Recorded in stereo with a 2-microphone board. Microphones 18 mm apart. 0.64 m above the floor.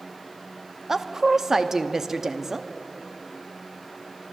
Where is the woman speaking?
25° right (ahead or behind), 0.6 m.